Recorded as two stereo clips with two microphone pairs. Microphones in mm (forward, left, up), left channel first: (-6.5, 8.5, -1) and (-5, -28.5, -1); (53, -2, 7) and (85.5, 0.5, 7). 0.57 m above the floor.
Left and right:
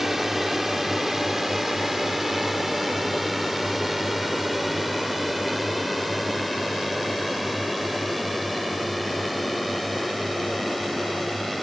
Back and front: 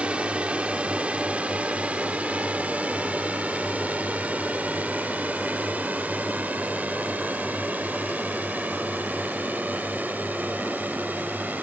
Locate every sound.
0.0 s a drone: 10° right; by 11.6 s 5° left